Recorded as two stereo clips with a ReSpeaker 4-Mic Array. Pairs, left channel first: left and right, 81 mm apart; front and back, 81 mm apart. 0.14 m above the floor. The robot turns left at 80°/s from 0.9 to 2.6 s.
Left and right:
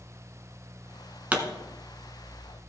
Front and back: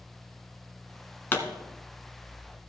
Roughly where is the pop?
Ahead right.